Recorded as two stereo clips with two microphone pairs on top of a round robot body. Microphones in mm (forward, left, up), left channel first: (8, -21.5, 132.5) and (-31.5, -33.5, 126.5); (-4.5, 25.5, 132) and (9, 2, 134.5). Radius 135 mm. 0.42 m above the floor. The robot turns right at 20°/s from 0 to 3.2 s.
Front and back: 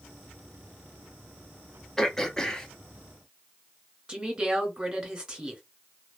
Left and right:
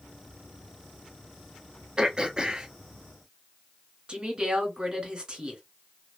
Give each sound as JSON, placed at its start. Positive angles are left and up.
{"t": 2.0, "sound": "throat clearing", "azimuth_deg": -70, "distance_m": 0.8}
{"t": 4.1, "sound": "a woman speaking", "azimuth_deg": -105, "distance_m": 1.7}